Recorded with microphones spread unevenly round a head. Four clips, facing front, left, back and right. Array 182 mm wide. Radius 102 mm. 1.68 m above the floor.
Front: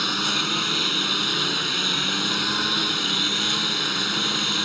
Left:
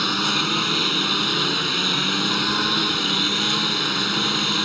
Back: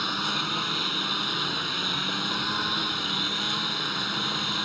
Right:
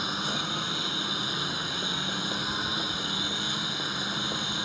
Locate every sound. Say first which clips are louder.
0.0 s a lawn mower: left 8 dB, front 3 dB; 75° left